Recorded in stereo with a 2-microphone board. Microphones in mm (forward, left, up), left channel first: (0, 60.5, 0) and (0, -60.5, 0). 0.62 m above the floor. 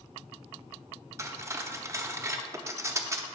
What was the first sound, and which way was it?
Cutlery clinking, 25° right (ahead or behind).